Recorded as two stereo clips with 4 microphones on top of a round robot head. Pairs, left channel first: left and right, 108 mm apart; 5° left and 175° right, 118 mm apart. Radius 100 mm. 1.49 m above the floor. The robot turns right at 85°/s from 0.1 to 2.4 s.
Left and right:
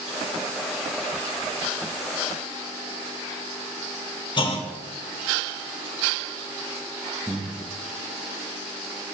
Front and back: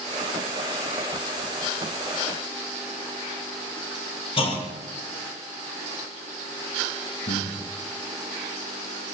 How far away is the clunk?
About 2 m.